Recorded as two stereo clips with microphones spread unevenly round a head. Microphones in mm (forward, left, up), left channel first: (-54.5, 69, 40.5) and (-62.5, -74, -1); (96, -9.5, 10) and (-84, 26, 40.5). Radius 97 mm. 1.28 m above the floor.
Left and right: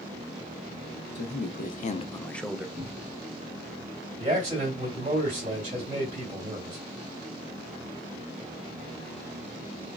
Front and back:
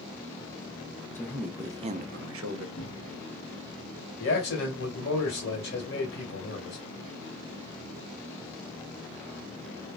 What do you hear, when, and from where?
1.1 s a man speaking: 70° left, 0.8 m; by 2.7 s straight behind, 0.7 m
2.8 s a cupboard door: 40° right, 1.4 m
4.2 s a man speaking: 35° right, 1.9 m